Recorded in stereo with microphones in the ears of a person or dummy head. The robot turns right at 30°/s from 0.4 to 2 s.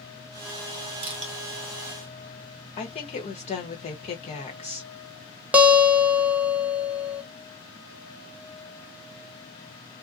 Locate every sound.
1.0 s crushing: 30° right (ahead or behind), 0.9 m; by 1.3 s 40° right (ahead or behind), 0.9 m
2.8 s a woman speaking: 35° left (ahead or behind), 1.1 m
5.5 s a guitar: 5° right (ahead or behind), 0.6 m